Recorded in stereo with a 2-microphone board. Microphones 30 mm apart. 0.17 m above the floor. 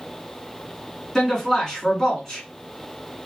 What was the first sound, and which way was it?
A man speaking, 15° left (ahead or behind).